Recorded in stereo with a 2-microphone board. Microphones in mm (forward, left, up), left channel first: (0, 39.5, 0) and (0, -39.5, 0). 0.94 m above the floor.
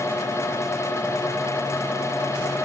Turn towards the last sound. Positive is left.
No sound to turn to.